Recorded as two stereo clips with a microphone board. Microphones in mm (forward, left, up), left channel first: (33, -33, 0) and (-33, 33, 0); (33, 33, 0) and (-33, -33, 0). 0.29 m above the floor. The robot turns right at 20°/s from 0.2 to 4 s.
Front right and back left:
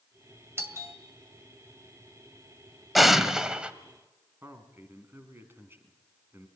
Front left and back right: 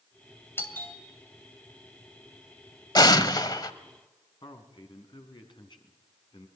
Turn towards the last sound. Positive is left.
turn(degrees=70)